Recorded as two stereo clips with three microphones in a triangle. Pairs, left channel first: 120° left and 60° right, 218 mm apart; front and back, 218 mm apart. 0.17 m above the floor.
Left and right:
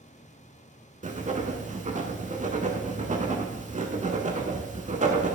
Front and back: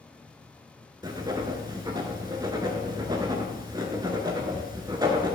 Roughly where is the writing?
Behind right.